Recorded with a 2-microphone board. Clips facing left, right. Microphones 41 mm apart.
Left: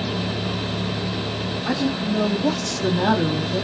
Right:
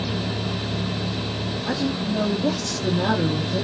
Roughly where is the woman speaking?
Left.